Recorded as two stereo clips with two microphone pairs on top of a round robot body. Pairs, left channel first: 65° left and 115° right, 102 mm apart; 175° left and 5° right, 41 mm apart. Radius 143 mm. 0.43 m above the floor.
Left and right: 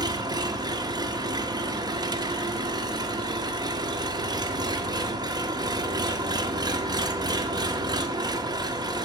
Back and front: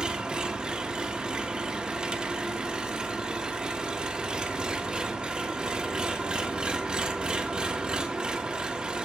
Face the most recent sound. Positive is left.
turn(degrees=-70)